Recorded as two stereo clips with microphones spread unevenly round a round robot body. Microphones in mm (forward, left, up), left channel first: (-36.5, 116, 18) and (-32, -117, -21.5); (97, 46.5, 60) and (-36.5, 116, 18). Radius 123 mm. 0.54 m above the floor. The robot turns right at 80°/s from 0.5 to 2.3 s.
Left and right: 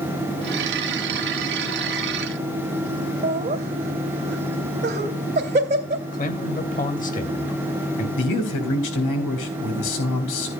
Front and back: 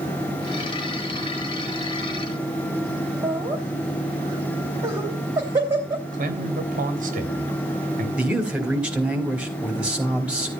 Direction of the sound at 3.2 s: 145° right.